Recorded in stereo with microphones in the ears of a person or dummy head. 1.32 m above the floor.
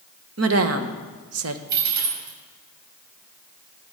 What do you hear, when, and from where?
0.4 s a woman speaking: 75° right (ahead or behind), 1.2 m
1.7 s a dropped coin: 55° right (ahead or behind), 4 m